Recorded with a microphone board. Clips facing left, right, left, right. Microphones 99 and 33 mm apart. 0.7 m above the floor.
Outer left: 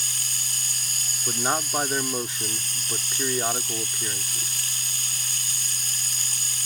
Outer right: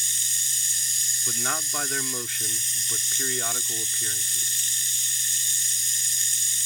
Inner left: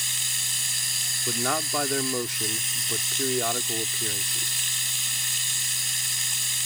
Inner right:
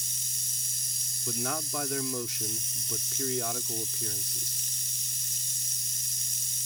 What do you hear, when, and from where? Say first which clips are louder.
0.0 s running water: outer left 2 dB, inner left 7 dB; 55° left (ahead or behind)
1.3 s a man speaking: outer left 5 dB, inner left 6 dB; 25° left (ahead or behind)